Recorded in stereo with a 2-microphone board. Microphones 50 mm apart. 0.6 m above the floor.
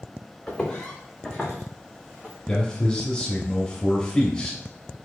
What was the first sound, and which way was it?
Footsteps, 10° left (ahead or behind).